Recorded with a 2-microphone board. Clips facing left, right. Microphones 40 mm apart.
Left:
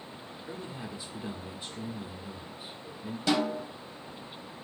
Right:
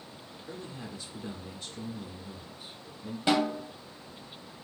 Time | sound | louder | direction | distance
0.5 | a man speaking | left 1 dB | 15° left (ahead or behind) | 0.8 m
3.3 | a snare drum | right 1 dB | 25° right (ahead or behind) | 1.0 m